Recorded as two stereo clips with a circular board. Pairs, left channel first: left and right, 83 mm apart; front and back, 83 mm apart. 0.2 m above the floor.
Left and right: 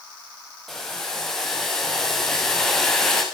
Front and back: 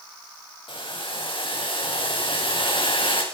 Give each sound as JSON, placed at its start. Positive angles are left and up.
{"t": 0.7, "sound": "boiling", "azimuth_deg": 5, "distance_m": 6.5}